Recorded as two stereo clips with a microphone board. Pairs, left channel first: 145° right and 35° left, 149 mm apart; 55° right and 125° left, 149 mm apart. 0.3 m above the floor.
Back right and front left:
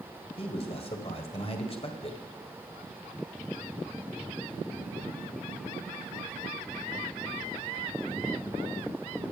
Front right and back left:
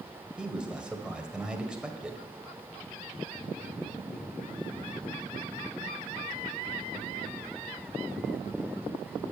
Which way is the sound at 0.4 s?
155° right.